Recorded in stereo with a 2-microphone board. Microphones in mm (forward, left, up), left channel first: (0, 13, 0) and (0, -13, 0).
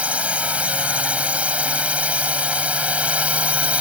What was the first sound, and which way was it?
A drone, 65° right (ahead or behind).